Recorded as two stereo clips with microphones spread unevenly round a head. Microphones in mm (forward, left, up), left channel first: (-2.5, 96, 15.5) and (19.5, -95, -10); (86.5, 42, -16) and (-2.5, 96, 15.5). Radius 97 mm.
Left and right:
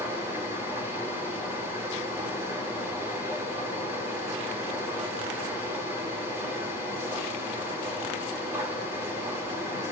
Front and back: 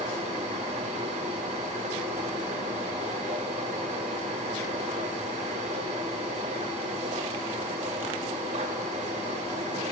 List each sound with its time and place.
0.0 s a machine running: 165° right, 3.5 m